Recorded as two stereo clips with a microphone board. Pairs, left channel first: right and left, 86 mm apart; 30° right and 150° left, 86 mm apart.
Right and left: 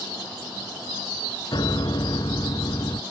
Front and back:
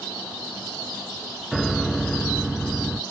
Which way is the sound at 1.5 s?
120° right.